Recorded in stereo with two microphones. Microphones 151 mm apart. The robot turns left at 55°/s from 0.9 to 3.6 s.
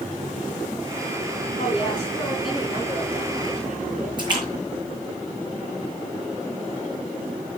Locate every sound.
1.6 s a woman speaking: 50° left, 8 m; by 4.1 s 60° right, 8 m
4.2 s a splash: 30° right (ahead or behind), 5.5 m